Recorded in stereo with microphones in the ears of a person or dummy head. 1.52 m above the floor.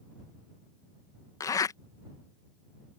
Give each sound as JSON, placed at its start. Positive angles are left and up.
{"t": 1.4, "sound": "a zipper", "side_deg": 20}